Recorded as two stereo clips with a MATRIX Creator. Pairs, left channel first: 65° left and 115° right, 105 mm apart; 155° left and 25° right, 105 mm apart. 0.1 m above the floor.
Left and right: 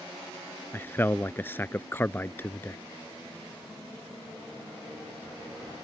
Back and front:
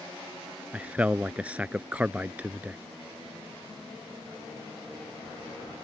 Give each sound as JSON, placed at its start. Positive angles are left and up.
{"t": 0.7, "sound": "a man speaking", "azimuth_deg": 35}